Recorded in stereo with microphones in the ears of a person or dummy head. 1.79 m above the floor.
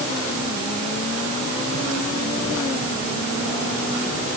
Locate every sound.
Only background noise.